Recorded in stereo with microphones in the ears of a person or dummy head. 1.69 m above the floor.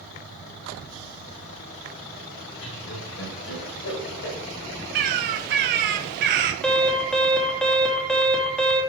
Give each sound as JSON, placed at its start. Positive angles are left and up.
{"t": 2.6, "sound": "laughter", "side_deg": 70, "distance_m": 6.5}
{"t": 5.0, "sound": "a bird", "side_deg": -55, "distance_m": 1.7}
{"t": 6.6, "sound": "an alarm", "side_deg": 0, "distance_m": 2.5}